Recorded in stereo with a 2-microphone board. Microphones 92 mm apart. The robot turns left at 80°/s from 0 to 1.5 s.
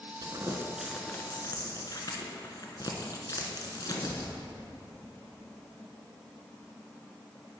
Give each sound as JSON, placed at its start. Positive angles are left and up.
{"t": 0.2, "sound": "crumpling", "side_deg": -55, "distance_m": 1.1}